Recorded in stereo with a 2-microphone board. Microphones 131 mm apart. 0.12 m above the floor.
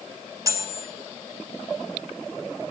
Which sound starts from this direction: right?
Cutlery clinking, at 0.5 s.